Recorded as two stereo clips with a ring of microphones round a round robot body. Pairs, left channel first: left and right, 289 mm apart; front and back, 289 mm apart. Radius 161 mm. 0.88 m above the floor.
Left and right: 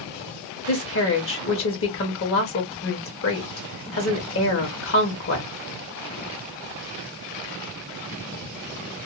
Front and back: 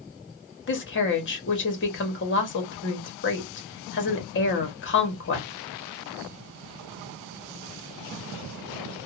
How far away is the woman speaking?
About 1.3 m.